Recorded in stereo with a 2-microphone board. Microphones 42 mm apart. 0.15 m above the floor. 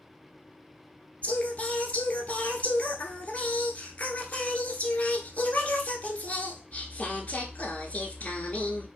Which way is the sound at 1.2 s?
40° left (ahead or behind).